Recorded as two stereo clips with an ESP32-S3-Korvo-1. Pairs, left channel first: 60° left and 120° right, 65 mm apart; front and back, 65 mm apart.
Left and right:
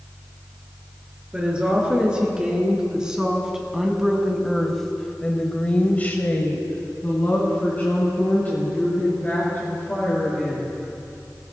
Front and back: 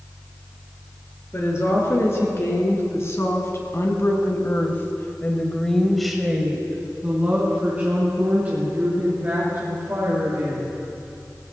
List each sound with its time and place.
1.3 s a woman speaking: 45° right, 4 m; by 10.7 s 125° left, 5 m